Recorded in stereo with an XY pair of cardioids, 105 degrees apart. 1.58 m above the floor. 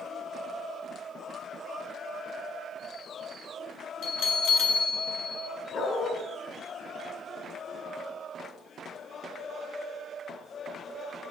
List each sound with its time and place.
4.0 s a bell: 70° left, 2.5 m
5.7 s a dog barking: 55° left, 7.5 m